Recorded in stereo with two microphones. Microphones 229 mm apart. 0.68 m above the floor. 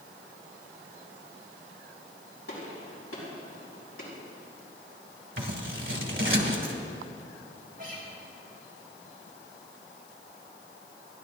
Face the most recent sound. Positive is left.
turn(degrees=-40)  # may be behind; listen again after turning